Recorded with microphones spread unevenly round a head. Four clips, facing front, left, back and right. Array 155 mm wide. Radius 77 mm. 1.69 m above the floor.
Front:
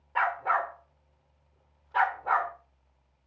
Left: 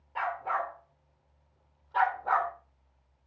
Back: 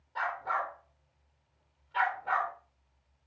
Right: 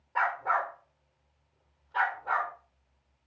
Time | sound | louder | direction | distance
0.1 | a dog barking | right 3 dB, front 6 dB | 30° right | 1.8 m